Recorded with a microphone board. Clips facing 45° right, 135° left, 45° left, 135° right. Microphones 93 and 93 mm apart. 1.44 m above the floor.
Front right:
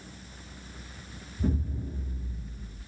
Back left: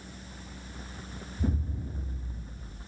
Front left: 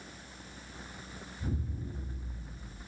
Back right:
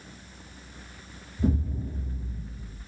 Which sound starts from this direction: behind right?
An explosion, at 1.4 s.